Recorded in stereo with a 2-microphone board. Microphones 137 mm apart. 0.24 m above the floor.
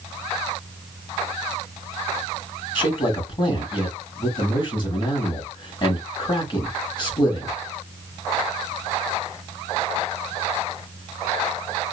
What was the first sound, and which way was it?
A man speaking, 35° left (ahead or behind).